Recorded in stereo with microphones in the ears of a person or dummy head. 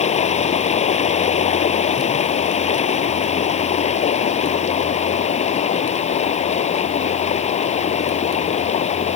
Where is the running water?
40° left (ahead or behind).